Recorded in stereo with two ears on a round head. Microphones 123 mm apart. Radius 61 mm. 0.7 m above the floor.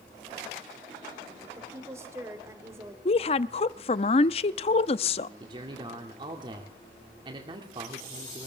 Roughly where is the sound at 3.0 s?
Left.